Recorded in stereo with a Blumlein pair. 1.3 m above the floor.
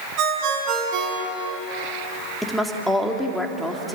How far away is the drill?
No drill in this recording.